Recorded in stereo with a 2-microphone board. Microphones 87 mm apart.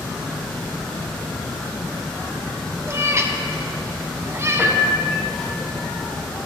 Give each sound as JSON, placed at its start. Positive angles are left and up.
{"t": 2.9, "sound": "a cat meowing", "side_deg": -30, "distance_m": 0.6}
{"t": 4.6, "sound": "a piano", "side_deg": -25, "distance_m": 1.6}